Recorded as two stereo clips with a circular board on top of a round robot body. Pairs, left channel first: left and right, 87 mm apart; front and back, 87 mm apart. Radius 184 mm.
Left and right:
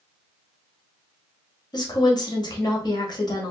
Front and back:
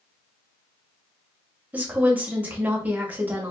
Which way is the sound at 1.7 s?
110° left.